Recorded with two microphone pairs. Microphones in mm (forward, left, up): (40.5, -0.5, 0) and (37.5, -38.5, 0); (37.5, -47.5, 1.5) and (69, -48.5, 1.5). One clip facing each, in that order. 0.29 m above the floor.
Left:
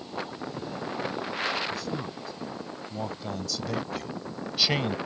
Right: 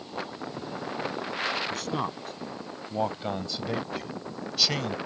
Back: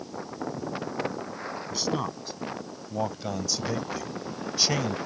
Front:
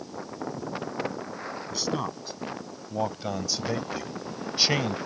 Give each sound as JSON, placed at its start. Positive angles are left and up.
{"t": 1.7, "sound": "a man speaking", "azimuth_deg": -90}